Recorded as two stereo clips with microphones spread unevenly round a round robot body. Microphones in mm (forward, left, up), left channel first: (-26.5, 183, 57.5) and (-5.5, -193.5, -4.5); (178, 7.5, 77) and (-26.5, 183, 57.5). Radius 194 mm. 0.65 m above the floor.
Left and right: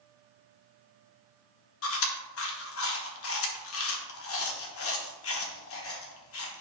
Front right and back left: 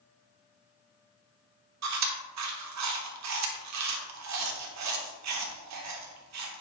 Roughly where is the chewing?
Behind left.